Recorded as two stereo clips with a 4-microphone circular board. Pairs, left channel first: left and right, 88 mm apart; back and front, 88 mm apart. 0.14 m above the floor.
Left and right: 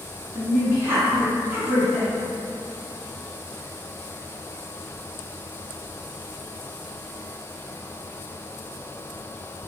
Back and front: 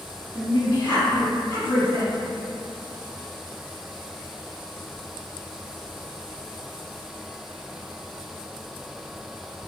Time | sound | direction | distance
0.3 | a woman speaking | 135° right | 2.0 m